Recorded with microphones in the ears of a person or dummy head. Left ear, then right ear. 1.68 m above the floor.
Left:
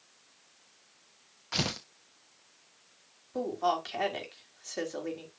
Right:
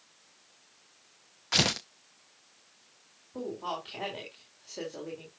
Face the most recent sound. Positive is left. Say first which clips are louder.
# left 6 dB
turn(degrees=65)  # may be behind; listen again after turning